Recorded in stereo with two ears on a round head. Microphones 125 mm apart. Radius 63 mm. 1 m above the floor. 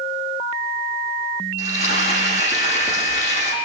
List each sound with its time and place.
1.6 s frying: 55° left (ahead or behind), 10 m